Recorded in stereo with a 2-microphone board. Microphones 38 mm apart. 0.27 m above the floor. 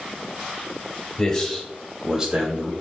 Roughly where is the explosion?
No explosion in this recording.